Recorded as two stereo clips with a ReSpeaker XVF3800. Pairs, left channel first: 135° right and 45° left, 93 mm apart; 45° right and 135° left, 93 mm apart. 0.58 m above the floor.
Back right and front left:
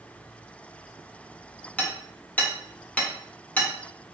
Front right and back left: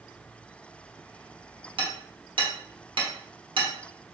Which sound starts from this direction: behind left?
Hammering, at 1.8 s.